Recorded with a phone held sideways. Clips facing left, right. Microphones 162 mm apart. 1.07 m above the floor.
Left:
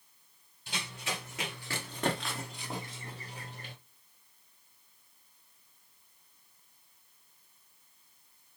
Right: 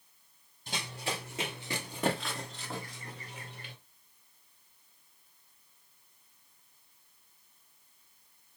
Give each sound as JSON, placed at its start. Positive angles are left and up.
{"t": 0.7, "sound": "running footsteps", "side_deg": -40, "distance_m": 1.7}